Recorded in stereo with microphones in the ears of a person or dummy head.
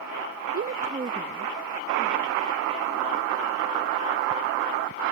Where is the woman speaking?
35° right (ahead or behind); by 4.7 s 10° right (ahead or behind).